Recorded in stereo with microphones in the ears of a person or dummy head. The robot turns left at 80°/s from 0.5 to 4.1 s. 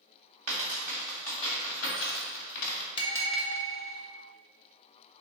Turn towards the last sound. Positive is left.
turn(degrees=-70)